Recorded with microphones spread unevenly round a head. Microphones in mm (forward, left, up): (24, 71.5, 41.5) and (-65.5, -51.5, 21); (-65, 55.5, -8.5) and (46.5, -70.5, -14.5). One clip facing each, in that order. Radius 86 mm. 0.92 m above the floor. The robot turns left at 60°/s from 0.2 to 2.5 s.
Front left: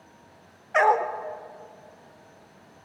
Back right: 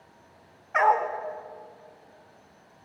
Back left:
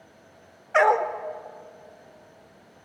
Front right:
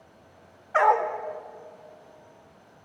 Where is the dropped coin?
No dropped coin in this recording.